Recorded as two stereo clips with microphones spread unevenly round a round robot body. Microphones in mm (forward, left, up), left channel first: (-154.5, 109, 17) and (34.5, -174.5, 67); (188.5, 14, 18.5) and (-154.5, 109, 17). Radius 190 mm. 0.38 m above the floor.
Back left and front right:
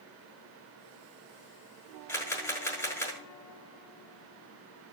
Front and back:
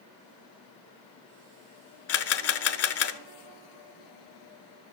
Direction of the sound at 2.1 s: 40° left.